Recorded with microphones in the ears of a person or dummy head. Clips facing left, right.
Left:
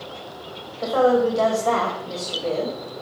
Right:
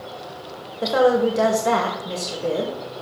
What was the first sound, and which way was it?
A woman speaking, 25° right (ahead or behind).